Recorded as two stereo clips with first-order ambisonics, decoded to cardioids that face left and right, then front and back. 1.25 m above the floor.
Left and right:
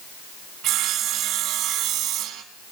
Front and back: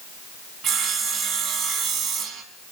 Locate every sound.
0.6 s sawing: 130° right, 2.5 m